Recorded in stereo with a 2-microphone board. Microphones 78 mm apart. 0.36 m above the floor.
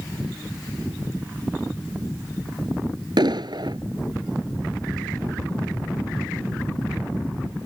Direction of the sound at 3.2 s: 70° right (ahead or behind).